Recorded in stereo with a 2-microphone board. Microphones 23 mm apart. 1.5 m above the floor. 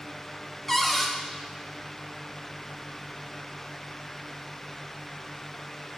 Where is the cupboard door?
10° left (ahead or behind), 0.6 m.